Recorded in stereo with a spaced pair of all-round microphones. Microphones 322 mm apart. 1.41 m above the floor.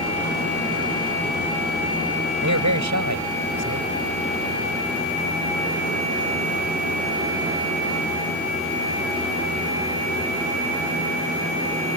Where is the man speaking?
70° right (ahead or behind).